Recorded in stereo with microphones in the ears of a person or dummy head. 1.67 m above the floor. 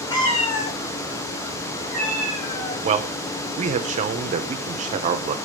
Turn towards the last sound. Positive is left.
turn(degrees=-40)  # may be behind; listen again after turning